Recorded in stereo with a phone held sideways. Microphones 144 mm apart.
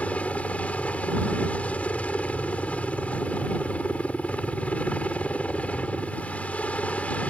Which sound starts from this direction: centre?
A helicopter, at 0.0 s.